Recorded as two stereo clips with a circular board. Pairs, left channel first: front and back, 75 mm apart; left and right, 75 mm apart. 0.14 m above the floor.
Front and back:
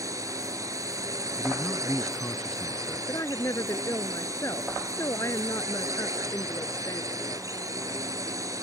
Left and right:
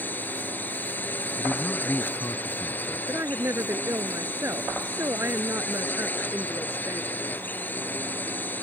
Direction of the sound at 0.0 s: 150° left.